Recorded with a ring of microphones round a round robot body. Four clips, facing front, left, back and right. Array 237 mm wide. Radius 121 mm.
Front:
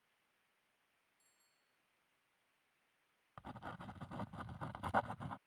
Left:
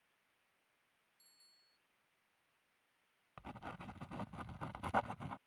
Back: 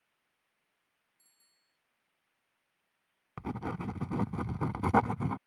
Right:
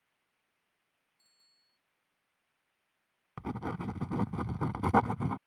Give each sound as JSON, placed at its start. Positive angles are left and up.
{"t": 1.2, "sound": "a bicycle bell", "azimuth_deg": -150}
{"t": 3.4, "sound": "writing", "azimuth_deg": -135}